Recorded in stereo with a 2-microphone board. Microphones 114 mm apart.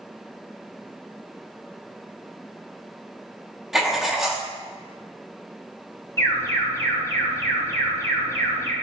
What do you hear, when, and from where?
3.7 s writing: 5° right (ahead or behind), 1.6 m
6.2 s an alarm: 25° left (ahead or behind), 2.5 m